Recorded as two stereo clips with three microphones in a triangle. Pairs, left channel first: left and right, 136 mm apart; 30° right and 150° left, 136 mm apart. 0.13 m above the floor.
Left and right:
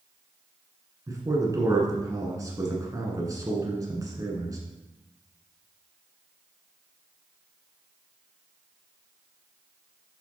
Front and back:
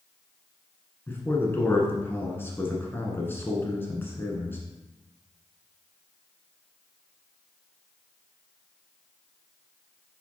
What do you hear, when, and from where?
1.1 s a man speaking: 80° right, 1.5 m